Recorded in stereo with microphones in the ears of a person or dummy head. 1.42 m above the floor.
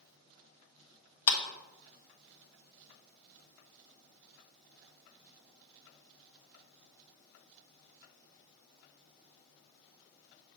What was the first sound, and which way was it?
A clap, 80° left.